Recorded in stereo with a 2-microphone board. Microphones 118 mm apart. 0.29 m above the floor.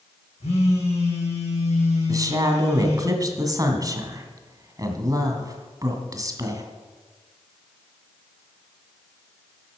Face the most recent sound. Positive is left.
turn(degrees=-30)  # may be behind; listen again after turning